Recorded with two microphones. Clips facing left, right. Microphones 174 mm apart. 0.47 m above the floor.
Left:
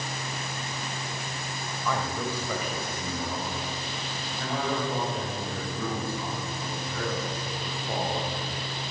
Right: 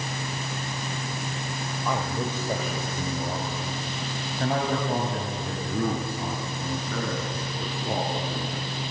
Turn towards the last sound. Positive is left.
turn(degrees=-75)  # may be behind; listen again after turning